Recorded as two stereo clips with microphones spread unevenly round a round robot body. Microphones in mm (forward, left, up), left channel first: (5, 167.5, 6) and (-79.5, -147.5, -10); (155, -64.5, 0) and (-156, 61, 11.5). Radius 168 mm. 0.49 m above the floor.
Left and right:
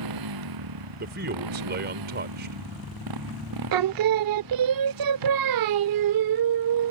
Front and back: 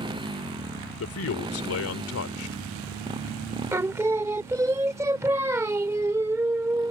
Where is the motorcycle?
125° right.